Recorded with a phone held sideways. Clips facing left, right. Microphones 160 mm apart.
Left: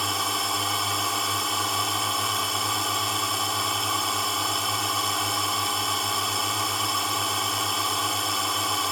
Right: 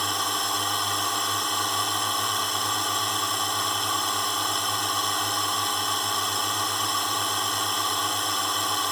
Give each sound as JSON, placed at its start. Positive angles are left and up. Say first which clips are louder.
{"t": 0.0, "sound": "a drone", "louder": "even", "side_deg": 0}